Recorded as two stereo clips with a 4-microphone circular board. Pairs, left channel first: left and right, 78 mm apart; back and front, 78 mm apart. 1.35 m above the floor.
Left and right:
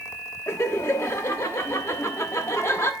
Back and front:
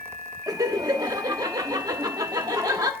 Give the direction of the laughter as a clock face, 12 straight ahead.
11 o'clock.